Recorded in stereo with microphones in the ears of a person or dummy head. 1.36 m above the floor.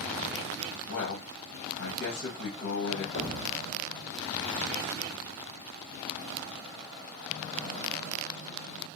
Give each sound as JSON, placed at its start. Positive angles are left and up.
{"t": 0.9, "sound": "a man speaking", "side_deg": 75, "distance_m": 1.3}
{"t": 3.1, "sound": "an explosion", "side_deg": 50, "distance_m": 3.5}